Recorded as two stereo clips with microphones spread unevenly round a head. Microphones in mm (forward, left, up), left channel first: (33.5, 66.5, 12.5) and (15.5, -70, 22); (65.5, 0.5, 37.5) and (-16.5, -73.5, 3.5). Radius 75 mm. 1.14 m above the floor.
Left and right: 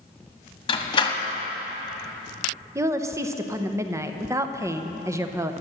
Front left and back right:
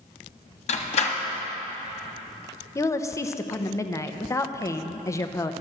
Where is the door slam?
25° left, 1.2 m.